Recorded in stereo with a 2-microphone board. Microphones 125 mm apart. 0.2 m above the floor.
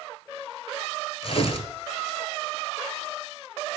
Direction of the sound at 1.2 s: 60° left (ahead or behind).